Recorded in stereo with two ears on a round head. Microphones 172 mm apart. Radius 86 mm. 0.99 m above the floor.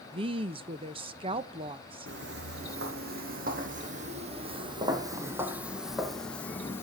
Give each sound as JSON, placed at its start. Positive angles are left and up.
{"t": 0.1, "sound": "a woman speaking", "side_deg": -30, "distance_m": 0.6}
{"t": 2.1, "sound": "footsteps", "side_deg": -65, "distance_m": 2.5}